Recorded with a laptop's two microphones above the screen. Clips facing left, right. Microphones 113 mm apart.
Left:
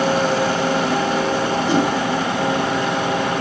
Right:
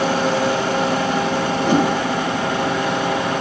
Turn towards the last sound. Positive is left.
turn(degrees=-55)  # may be behind; listen again after turning